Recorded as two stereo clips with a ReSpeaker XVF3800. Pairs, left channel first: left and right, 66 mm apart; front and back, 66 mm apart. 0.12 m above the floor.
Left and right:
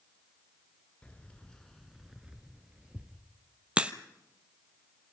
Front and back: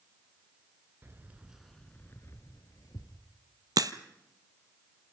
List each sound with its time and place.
1.0 s keys jangling: 150° left, 1.2 m; by 3.2 s 15° right, 2 m
3.8 s a crack: 165° right, 0.9 m